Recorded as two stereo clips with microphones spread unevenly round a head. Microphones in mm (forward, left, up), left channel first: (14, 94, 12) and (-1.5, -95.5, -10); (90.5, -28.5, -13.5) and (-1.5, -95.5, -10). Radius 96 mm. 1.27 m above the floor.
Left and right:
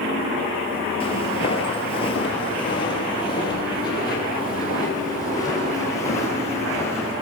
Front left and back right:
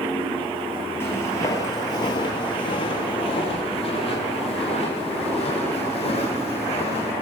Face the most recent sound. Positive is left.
turn(degrees=15)